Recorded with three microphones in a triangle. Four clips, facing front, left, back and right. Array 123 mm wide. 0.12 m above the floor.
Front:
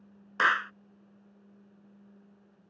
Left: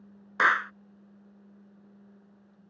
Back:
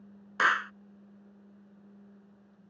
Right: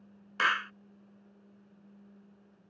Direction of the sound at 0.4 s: 85° left.